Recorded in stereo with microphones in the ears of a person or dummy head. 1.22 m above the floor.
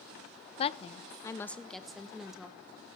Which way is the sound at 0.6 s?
35° left (ahead or behind).